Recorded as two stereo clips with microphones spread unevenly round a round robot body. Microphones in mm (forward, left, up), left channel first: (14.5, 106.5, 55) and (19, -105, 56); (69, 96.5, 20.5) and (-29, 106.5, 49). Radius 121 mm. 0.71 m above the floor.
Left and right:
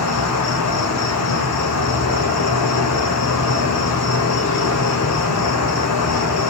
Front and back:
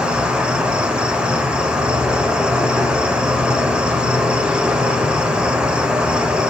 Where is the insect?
95° left, 1.1 m.